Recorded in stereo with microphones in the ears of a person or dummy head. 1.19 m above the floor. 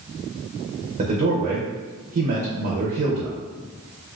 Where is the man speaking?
40° right (ahead or behind), 0.7 m.